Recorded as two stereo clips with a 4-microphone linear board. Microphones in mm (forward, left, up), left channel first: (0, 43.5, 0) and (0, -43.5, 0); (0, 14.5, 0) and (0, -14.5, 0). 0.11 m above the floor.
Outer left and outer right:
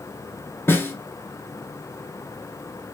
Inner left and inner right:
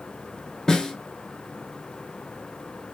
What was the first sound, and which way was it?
A snare drum, 25° left (ahead or behind).